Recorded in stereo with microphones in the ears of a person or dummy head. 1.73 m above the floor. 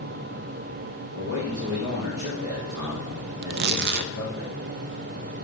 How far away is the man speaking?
About 2 m.